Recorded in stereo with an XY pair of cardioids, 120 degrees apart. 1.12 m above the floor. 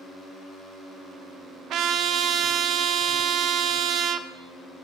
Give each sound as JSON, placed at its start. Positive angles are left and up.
{"t": 1.7, "sound": "a trumpet", "azimuth_deg": -65, "distance_m": 0.6}